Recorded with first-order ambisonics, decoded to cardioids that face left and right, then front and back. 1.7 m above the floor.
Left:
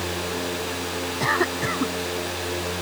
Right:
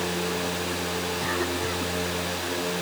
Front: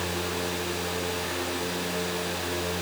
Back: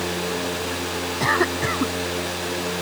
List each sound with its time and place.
1.2 s a cough: 150° left